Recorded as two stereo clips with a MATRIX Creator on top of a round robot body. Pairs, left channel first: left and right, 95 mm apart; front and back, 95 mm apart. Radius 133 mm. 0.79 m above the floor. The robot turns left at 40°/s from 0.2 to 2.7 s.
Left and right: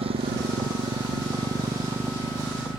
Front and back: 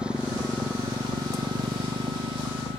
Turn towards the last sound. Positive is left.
turn(degrees=-175)